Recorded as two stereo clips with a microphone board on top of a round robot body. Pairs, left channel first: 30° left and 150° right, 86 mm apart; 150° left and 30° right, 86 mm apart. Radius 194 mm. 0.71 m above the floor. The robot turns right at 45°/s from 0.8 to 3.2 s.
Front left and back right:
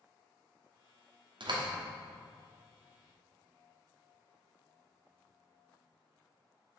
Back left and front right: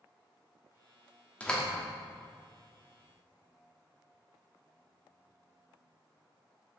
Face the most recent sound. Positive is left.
turn(degrees=-55)